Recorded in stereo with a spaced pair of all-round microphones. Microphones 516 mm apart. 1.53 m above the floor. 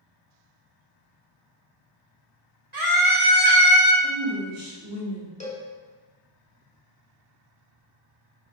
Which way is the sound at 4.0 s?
55° right (ahead or behind).